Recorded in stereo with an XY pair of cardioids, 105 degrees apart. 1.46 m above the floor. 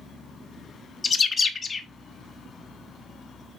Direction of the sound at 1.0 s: 30° left.